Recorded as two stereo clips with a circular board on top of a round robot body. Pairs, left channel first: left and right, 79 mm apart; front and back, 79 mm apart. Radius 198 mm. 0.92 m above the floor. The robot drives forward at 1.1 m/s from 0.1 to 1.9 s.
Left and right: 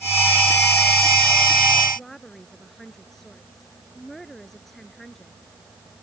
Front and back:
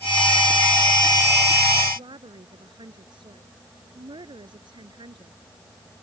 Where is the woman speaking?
175° left.